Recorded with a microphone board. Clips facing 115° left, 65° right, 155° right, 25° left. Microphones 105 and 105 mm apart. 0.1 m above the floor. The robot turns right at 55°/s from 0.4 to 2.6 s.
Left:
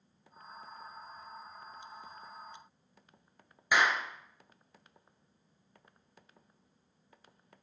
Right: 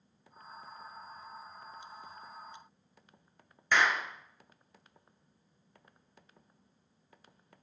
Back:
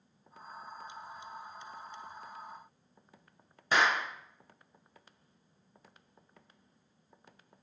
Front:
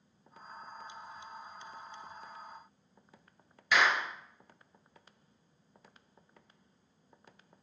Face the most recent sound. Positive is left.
turn(degrees=-175)